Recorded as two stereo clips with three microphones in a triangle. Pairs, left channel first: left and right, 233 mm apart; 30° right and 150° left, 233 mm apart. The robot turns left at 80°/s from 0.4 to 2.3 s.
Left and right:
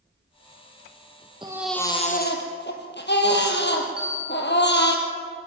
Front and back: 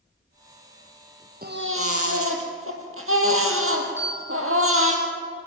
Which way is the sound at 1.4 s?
160° right.